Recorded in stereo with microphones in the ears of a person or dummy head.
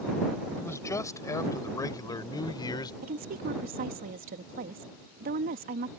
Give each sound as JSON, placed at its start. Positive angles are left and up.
{"t": 0.5, "sound": "a man speaking", "side_deg": 10}
{"t": 3.0, "sound": "a woman speaking", "side_deg": -55}